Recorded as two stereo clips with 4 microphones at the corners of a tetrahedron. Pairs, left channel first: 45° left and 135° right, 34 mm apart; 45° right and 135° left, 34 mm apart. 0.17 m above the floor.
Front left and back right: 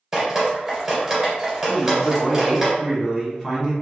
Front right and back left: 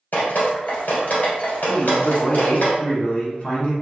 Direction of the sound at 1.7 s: 20° right.